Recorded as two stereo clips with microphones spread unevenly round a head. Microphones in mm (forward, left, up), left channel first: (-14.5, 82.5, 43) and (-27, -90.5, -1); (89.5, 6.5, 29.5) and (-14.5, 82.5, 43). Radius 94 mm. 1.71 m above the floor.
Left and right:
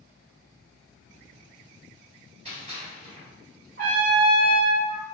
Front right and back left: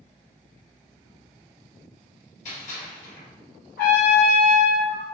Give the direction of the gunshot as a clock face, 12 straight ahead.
1 o'clock.